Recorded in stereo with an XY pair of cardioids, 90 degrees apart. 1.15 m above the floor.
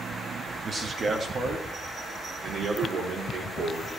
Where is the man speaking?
40° right, 1.4 m; by 4.0 s 70° right, 3.5 m.